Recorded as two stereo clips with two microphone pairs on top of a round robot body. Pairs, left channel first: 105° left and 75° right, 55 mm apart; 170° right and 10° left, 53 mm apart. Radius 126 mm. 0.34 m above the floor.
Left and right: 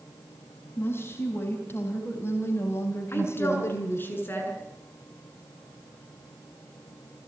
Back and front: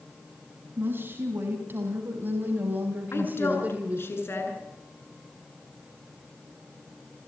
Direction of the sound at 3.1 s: 160° left.